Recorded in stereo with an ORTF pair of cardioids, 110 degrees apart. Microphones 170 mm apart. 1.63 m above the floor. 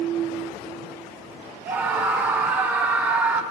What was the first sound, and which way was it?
A scream, 10° right.